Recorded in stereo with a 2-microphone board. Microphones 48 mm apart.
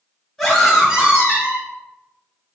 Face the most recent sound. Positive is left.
turn(degrees=-40)  # may be behind; listen again after turning